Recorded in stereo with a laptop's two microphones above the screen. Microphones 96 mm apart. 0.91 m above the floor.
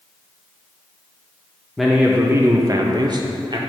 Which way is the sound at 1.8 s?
Centre (ahead or behind).